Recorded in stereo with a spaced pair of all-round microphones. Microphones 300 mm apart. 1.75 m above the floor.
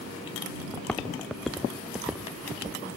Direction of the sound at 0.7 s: 5° left (ahead or behind).